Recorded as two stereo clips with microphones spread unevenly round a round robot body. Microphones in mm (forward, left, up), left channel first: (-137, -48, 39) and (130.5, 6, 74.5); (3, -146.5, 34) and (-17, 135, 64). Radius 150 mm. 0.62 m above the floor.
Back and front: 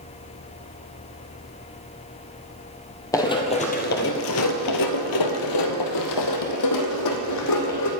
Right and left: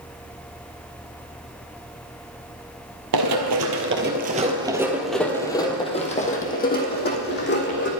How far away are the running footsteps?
About 1.2 m.